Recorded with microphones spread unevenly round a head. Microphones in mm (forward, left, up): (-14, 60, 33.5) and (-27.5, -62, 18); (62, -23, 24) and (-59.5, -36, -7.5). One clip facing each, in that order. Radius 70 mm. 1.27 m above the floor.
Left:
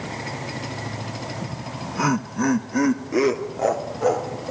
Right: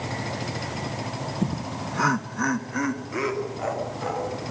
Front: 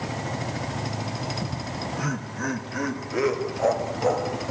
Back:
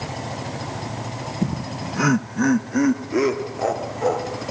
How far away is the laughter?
About 0.9 m.